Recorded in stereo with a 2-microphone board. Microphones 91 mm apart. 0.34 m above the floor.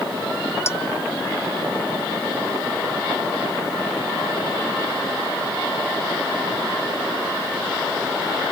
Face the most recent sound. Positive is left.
turn(degrees=25)  # may be behind; listen again after turning